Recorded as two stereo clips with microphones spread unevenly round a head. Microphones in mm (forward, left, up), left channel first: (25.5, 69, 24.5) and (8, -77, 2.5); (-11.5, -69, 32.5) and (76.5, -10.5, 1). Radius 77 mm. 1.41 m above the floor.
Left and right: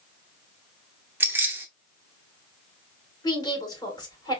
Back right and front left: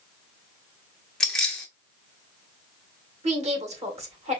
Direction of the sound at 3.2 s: 20° left.